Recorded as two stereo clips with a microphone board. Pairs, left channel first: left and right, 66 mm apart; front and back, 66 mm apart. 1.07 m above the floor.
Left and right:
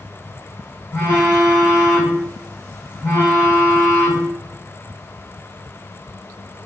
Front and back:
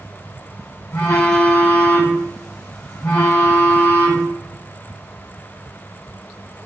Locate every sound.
0.9 s a phone buzzing: 35° left, 1.3 m